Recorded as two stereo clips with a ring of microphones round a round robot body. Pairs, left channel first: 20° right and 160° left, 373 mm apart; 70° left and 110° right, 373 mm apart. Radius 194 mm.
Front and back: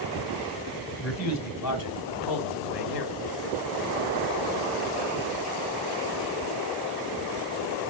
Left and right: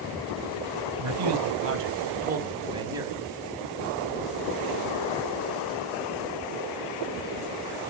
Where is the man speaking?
75° right, 3 m; by 3.1 s 30° right, 3.5 m.